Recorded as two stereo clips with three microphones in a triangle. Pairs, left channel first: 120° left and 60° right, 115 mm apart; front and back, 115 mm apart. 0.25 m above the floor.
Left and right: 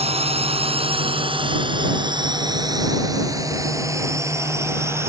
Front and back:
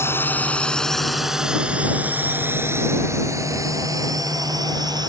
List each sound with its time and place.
0.0 s a drone: 65° right; by 5.1 s 130° right